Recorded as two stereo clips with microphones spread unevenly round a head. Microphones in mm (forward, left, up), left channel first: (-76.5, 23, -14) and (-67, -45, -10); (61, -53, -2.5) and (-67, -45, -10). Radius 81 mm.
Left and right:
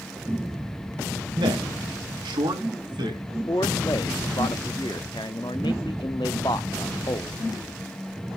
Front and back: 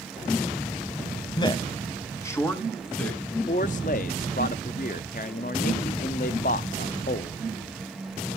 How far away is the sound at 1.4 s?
About 1.4 m.